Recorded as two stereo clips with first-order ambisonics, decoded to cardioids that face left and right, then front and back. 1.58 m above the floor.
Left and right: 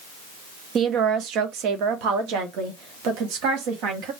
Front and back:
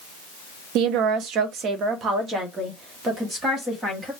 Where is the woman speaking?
150° right, 0.7 m; by 4.1 s 105° right, 2 m.